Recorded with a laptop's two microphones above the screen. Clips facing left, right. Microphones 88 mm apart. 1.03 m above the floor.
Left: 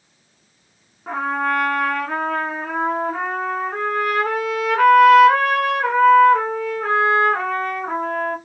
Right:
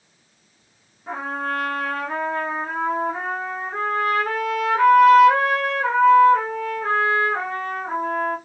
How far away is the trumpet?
About 1.4 m.